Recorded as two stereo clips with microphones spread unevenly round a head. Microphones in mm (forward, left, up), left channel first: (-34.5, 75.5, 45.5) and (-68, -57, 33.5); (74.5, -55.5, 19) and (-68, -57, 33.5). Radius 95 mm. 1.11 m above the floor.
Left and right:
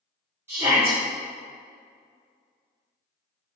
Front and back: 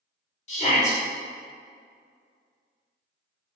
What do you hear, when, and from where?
0.5 s a shout: 30° right, 1.1 m